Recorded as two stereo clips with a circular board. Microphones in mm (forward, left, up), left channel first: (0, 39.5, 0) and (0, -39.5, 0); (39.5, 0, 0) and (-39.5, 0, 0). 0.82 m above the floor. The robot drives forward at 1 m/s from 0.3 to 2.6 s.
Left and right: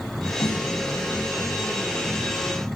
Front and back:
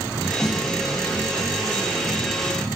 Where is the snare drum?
95° left, 6 m; by 0.7 s 100° left, 6 m.